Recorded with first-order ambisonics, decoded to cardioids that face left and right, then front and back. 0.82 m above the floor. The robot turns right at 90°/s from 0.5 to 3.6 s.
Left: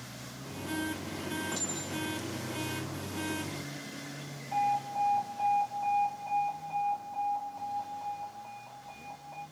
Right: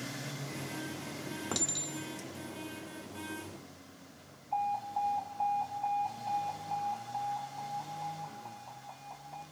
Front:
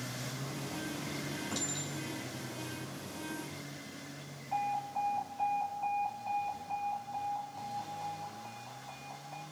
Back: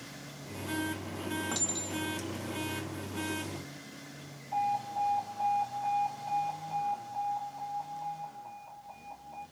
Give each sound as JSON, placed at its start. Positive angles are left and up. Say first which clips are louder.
{"t": 1.5, "sound": "a clink", "louder": "even, back 4 dB", "azimuth_deg": -110, "distance_m": 1.5}
{"t": 4.5, "sound": "an alarm", "louder": "left 3 dB, back 3 dB", "azimuth_deg": 35, "distance_m": 3.5}